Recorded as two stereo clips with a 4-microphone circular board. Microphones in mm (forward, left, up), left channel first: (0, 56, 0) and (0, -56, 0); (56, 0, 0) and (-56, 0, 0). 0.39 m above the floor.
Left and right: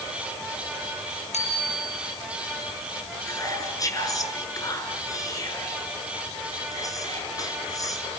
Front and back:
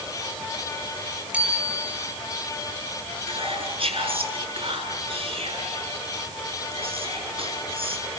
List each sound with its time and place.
1.3 s a bicycle bell: 105° left, 7.5 m
3.3 s whispering: 150° left, 6.5 m